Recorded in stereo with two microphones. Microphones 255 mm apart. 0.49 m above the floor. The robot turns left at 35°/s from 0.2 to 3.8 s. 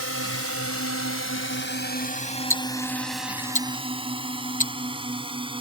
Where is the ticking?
10° left (ahead or behind); by 4.7 s 30° left (ahead or behind).